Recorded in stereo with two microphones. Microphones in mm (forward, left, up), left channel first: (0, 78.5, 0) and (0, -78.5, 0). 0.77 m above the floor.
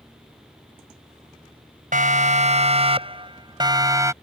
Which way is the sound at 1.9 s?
60° right (ahead or behind).